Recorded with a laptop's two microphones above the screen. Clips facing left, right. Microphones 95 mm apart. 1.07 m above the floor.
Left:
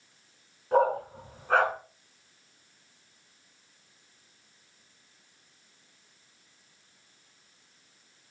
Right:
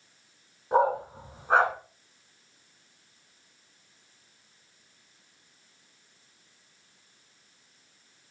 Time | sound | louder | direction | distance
0.7 | a dog barking | even | 20° right (ahead or behind) | 3 m